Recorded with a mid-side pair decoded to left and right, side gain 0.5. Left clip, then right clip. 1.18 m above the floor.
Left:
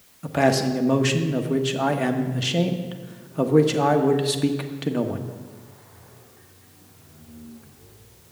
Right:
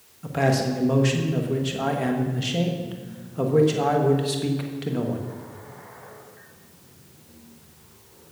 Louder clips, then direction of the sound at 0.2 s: Left 3 dB; 25° left.